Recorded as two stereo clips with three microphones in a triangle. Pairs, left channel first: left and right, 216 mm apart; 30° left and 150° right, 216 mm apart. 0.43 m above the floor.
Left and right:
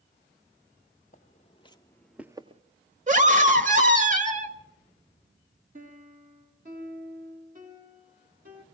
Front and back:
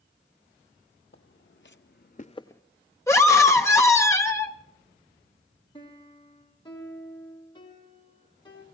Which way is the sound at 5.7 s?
40° right.